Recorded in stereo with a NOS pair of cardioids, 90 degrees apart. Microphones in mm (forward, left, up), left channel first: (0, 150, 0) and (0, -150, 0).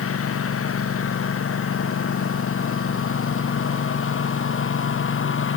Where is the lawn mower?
50° left; by 5.6 s 45° left.